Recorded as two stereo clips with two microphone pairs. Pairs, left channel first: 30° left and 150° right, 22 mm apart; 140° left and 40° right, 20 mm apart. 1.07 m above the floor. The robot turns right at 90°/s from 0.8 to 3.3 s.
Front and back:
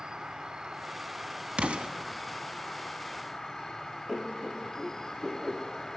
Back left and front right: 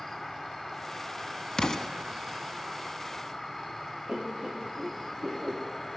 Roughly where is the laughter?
Right.